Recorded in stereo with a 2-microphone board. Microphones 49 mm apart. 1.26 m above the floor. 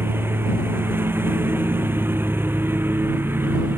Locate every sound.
0.0 s a lawn mower: 50° right (ahead or behind); by 3.8 s 45° right (ahead or behind)